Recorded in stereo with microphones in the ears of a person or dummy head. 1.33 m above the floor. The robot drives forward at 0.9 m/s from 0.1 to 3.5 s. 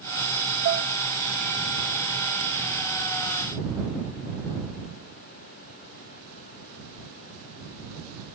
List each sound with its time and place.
0.7 s dishes clattering: 45° right (ahead or behind), 0.8 m; by 0.9 s 55° right (ahead or behind), 0.7 m